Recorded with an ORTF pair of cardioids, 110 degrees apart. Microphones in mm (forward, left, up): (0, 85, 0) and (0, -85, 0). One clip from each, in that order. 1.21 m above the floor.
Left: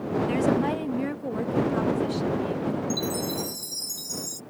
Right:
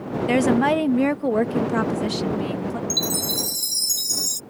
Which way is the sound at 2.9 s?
45° right.